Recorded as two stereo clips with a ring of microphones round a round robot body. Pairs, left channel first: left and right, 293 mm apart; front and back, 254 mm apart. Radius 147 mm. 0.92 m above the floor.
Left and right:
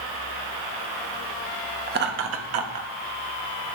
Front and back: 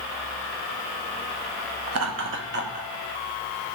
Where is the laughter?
150° right, 1.2 m; by 2.9 s 115° right, 1.4 m.